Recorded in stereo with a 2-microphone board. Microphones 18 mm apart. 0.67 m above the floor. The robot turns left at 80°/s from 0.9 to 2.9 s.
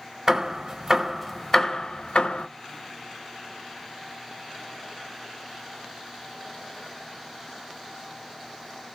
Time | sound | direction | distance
0.3 | hammering | 20° right (ahead or behind) | 1.0 m